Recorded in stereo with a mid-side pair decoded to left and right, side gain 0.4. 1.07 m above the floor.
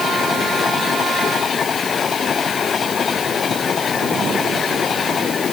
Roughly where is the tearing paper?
I don't hear tearing paper.